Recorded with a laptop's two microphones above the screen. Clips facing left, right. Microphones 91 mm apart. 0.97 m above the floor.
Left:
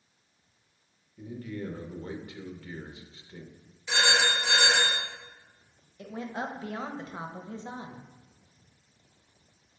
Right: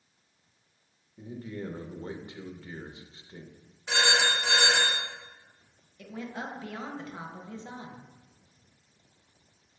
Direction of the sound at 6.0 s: 25° left (ahead or behind).